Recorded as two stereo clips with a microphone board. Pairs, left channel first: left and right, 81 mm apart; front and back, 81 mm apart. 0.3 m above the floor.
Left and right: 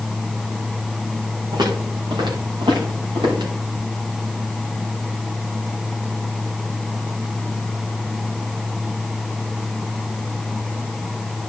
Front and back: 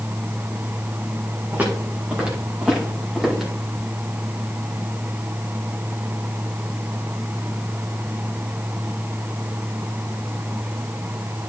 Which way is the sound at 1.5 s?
110° right.